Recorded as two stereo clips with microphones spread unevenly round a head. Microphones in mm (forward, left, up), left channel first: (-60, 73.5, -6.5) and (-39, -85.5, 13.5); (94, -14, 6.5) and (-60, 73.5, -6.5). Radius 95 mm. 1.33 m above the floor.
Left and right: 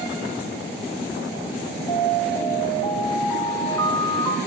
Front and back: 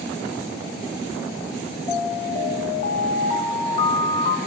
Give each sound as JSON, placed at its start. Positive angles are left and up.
{"t": 1.9, "sound": "an alarm", "azimuth_deg": 25, "distance_m": 2.0}